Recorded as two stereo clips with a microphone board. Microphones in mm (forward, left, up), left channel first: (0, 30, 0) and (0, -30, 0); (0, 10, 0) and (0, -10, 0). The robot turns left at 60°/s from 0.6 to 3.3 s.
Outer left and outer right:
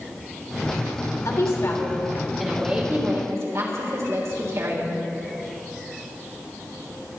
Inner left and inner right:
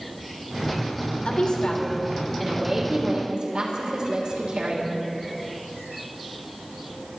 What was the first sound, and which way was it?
A woman speaking, 65° left.